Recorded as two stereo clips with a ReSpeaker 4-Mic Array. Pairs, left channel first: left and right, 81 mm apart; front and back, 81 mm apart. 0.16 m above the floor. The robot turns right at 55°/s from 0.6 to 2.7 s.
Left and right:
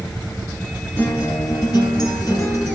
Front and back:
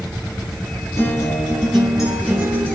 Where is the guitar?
40° left, 1.7 m; by 2.8 s 135° left, 1.7 m.